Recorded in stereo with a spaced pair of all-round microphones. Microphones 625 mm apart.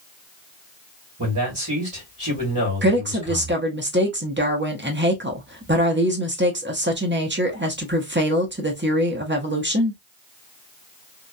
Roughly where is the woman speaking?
Centre.